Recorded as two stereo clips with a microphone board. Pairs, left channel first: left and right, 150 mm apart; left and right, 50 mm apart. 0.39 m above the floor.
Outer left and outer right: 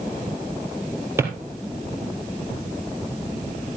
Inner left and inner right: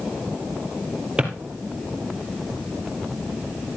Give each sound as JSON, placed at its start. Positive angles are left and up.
{"t": 1.2, "sound": "a drawer", "side_deg": -20, "distance_m": 2.5}